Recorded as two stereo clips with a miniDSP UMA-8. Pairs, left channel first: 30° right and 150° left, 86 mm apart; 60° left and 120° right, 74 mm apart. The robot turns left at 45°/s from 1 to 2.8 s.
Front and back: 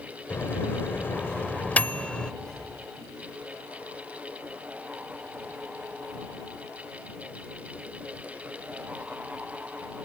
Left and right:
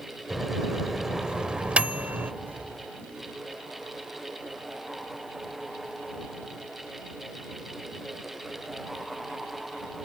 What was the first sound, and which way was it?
A microwave, 40° right.